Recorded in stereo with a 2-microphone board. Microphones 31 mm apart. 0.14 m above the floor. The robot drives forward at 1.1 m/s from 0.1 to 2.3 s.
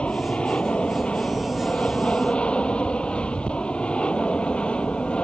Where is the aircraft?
40° left (ahead or behind); by 5.2 s 35° left (ahead or behind).